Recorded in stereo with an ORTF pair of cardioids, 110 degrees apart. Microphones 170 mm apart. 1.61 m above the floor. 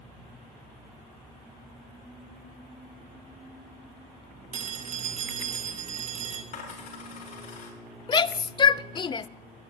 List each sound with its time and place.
4.5 s a phone ringing: 45° right, 2 m
6.5 s a dropped coin: 50° left, 5.5 m
8.1 s a shout: 25° left, 0.6 m